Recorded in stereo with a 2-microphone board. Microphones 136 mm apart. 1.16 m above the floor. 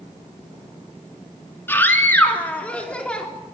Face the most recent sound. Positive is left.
turn(degrees=10)  # may be behind; listen again after turning